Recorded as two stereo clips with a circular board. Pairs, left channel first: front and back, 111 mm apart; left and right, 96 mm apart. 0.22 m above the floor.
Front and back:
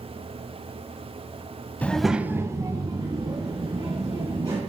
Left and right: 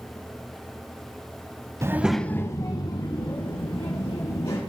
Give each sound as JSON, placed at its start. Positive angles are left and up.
{"t": 1.8, "sound": "a child speaking", "azimuth_deg": -65, "distance_m": 0.8}